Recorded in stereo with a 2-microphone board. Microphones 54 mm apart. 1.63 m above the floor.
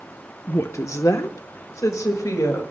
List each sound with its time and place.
0.5 s a woman speaking: 40° left (ahead or behind), 0.8 m; by 2.6 s 80° left, 3 m